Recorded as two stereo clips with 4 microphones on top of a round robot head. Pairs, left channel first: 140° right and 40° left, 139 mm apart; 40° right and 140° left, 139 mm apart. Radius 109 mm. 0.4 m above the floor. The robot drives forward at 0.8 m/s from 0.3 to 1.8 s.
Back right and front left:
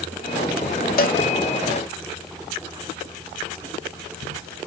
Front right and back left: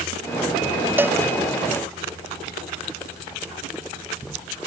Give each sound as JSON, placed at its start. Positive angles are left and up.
{"t": 1.0, "sound": "a cowbell", "azimuth_deg": -140}